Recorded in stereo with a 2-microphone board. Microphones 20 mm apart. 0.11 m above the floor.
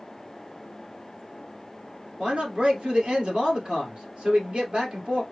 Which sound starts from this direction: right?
A man speaking, at 2.2 s.